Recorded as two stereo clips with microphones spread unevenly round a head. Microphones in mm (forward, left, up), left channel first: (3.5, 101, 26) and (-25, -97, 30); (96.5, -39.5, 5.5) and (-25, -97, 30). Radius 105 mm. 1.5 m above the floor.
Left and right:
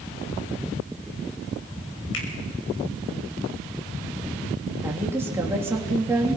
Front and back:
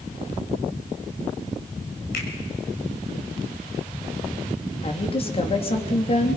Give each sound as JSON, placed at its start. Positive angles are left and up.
{"t": 2.1, "sound": "a finger snap", "azimuth_deg": 50, "distance_m": 6.5}
{"t": 4.8, "sound": "a woman speaking", "azimuth_deg": -20, "distance_m": 3.5}